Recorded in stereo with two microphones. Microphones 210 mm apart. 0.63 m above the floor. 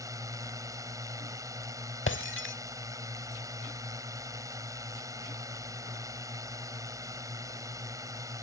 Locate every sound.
0.0 s a drone: 15° right (ahead or behind)
2.1 s breaking glass: 70° left (ahead or behind)